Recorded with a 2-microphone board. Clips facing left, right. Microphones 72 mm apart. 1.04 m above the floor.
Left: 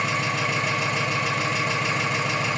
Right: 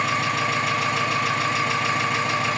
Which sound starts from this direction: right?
An engine running, at 0.0 s.